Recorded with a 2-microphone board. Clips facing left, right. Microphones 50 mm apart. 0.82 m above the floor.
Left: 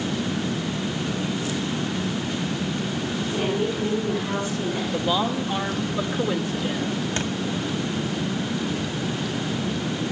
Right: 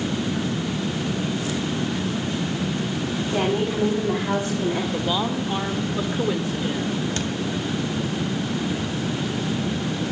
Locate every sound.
3.3 s a woman speaking: 85° right, 7.5 m; by 4.8 s 70° right (ahead or behind), 7.5 m
4.9 s a woman speaking: 5° right (ahead or behind), 2.5 m
7.2 s a thud: 20° left (ahead or behind), 2 m